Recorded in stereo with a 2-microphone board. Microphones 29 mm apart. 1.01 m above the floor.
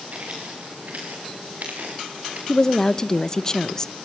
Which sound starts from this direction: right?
Footsteps, at 0.1 s.